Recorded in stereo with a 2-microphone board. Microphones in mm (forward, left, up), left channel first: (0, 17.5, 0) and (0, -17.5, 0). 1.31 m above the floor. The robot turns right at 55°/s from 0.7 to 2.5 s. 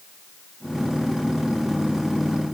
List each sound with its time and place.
Only background noise.